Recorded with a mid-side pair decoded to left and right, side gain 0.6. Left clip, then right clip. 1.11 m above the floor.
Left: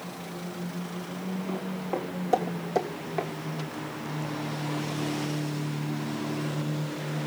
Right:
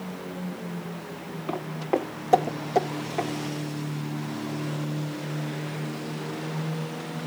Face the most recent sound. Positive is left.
turn(degrees=5)